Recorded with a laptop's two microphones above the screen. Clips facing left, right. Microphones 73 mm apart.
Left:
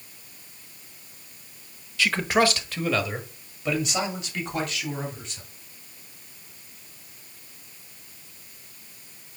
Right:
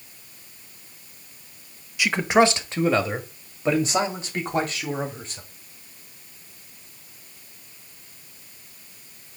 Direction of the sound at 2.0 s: 15° right (ahead or behind).